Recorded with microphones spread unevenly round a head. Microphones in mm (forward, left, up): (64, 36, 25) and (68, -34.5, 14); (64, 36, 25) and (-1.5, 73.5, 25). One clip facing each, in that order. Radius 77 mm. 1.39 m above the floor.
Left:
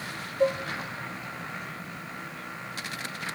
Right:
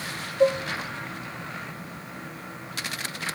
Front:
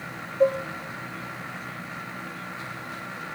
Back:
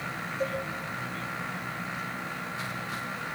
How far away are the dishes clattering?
About 0.5 m.